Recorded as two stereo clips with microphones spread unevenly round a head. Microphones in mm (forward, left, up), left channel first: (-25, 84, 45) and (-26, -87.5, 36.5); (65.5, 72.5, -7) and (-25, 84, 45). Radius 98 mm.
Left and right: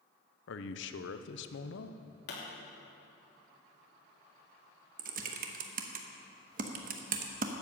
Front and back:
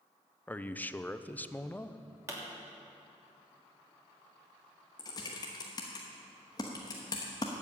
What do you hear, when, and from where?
0.5 s a man speaking: 65° left, 0.7 m
2.3 s a pop: 115° left, 3 m
5.0 s typing on a keyboard: 95° right, 0.8 m